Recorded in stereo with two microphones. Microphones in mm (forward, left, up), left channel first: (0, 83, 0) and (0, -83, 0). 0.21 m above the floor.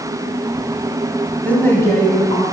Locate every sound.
1.4 s a woman speaking: 10° left (ahead or behind), 1.3 m; by 2.4 s 25° left (ahead or behind), 1.9 m